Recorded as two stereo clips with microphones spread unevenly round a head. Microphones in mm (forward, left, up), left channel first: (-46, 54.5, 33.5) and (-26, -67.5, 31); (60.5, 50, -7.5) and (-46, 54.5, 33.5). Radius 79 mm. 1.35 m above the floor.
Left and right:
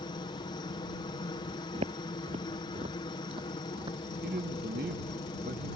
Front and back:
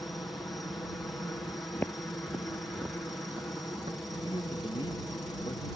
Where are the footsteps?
95° right; by 5.0 s 130° right.